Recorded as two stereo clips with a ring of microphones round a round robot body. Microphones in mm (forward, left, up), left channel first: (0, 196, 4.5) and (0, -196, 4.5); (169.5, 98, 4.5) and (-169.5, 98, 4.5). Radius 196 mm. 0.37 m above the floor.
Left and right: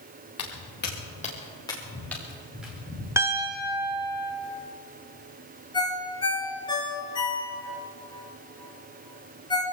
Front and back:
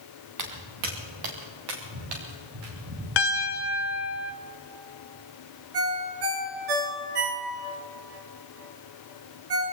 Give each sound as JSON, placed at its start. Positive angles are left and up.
{"t": 0.4, "sound": "footsteps", "azimuth_deg": 145, "distance_m": 3.0}
{"t": 3.2, "sound": "a piano", "azimuth_deg": -10, "distance_m": 1.0}
{"t": 5.7, "sound": "a ringtone", "azimuth_deg": 170, "distance_m": 2.5}